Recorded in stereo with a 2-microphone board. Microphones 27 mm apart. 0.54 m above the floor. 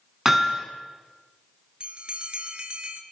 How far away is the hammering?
About 4 m.